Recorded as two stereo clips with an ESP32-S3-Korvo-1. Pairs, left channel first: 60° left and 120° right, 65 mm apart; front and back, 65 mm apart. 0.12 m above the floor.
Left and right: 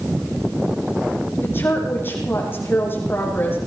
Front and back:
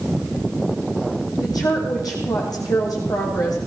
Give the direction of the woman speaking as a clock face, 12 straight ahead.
12 o'clock.